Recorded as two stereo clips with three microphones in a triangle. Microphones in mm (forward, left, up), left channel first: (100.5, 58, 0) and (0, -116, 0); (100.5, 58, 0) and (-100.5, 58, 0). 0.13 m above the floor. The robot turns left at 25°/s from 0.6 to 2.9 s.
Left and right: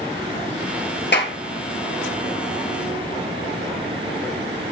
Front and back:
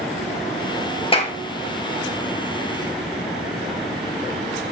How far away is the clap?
About 2 m.